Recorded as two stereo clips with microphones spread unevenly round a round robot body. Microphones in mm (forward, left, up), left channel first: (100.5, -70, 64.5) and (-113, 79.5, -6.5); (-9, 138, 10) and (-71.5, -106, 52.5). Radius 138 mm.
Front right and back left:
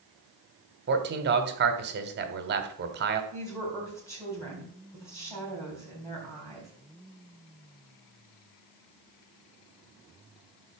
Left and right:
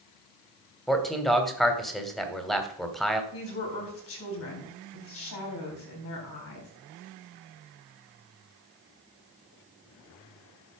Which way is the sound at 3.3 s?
50° left.